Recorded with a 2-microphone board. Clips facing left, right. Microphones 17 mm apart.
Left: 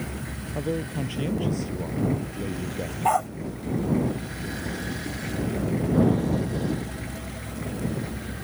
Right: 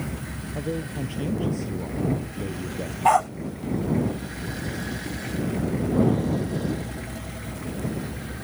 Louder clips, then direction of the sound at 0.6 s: Left 2 dB; 20° left (ahead or behind).